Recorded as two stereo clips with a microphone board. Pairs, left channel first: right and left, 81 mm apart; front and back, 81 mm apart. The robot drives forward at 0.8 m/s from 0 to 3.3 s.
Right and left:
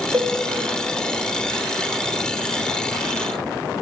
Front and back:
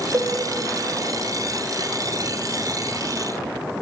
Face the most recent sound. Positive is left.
turn(degrees=165)